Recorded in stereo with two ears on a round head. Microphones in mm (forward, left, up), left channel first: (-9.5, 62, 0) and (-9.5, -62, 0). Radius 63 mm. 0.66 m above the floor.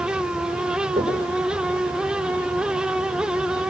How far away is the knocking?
About 10 m.